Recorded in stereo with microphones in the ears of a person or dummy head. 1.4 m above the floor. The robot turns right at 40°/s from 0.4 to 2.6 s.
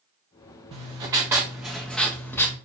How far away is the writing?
About 0.9 m.